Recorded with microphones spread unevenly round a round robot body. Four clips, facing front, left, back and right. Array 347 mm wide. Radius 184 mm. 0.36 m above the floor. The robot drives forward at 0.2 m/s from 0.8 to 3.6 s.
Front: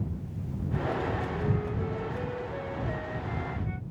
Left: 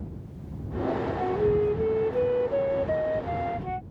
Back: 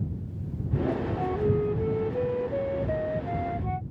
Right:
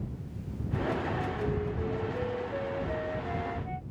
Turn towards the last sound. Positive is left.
turn(degrees=125)